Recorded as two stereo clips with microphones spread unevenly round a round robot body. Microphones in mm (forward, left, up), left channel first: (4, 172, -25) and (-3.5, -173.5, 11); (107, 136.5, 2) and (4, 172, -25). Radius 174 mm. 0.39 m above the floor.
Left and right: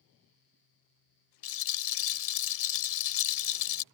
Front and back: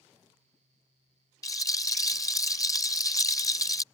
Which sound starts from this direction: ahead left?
A rattle, at 1.4 s.